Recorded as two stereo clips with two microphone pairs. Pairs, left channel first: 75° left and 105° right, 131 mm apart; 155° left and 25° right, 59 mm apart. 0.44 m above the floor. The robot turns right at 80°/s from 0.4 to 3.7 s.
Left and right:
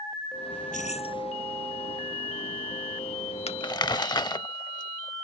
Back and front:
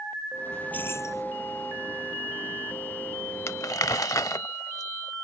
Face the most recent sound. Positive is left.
turn(degrees=135)